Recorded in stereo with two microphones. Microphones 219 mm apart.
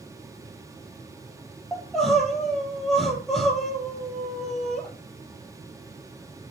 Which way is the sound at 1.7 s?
Centre (ahead or behind).